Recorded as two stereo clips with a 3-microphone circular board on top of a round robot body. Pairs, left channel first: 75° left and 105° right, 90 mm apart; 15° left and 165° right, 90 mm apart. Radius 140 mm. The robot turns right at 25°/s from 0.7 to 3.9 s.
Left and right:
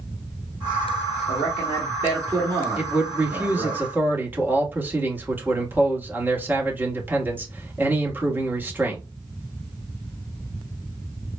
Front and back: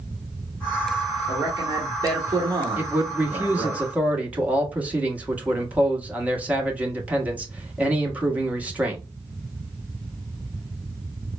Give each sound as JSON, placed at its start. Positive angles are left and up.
{"t": 1.3, "sound": "a man speaking", "azimuth_deg": 180, "distance_m": 1.6}
{"t": 2.8, "sound": "a man speaking", "azimuth_deg": -150, "distance_m": 1.2}